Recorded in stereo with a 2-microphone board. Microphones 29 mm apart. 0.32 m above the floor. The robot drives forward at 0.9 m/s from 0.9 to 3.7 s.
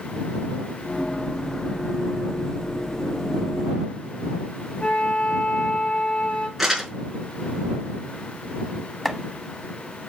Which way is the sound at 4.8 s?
45° left (ahead or behind).